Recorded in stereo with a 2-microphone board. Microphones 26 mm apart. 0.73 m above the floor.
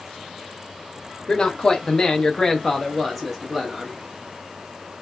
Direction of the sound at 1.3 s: 25° left (ahead or behind).